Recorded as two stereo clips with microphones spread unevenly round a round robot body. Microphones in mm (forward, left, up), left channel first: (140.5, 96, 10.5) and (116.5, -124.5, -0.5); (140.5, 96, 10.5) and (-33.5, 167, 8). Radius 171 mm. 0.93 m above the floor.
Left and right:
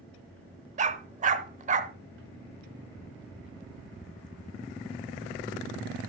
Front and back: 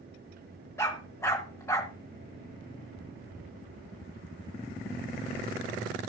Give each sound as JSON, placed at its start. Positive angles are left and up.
{"t": 0.8, "sound": "a dog barking", "azimuth_deg": -85, "distance_m": 0.7}